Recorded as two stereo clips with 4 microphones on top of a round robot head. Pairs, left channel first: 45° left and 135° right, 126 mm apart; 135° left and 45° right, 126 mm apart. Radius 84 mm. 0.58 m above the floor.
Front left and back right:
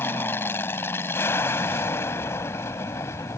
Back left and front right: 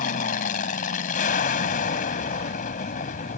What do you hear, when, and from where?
0.0 s an aircraft: 120° left; by 3.4 s 115° left